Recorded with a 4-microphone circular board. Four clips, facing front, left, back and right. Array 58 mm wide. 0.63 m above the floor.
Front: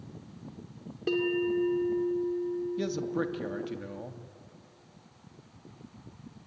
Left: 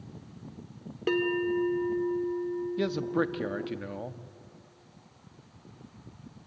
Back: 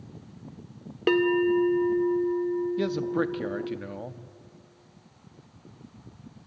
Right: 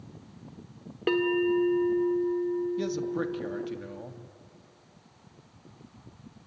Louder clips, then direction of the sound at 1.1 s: Right 2 dB, back 6 dB; 160° right.